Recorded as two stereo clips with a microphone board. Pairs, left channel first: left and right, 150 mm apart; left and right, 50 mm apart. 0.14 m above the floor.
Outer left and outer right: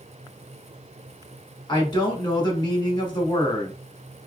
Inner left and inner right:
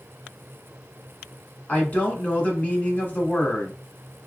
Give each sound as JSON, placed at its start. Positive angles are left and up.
{"t": 1.7, "sound": "a woman speaking", "side_deg": 30, "distance_m": 1.2}